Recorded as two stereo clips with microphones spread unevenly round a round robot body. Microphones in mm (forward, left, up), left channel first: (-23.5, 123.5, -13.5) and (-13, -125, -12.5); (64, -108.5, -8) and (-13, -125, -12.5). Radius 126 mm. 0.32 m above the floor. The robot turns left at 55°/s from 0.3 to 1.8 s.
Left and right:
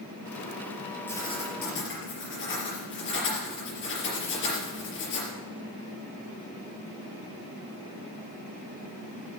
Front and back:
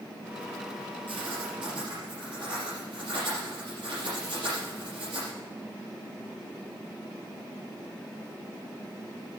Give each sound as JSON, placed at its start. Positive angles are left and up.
{"t": 1.1, "sound": "writing", "azimuth_deg": 175, "distance_m": 4.5}